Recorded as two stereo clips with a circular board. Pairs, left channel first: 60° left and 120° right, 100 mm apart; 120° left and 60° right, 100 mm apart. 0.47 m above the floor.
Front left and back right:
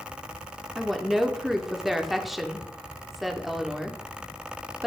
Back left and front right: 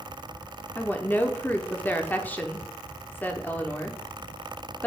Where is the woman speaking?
155° left, 0.7 m.